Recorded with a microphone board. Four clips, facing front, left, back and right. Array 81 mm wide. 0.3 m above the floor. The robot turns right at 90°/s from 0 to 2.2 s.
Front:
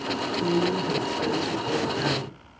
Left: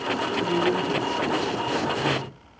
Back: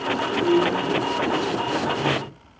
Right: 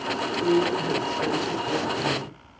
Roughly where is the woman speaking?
Behind right.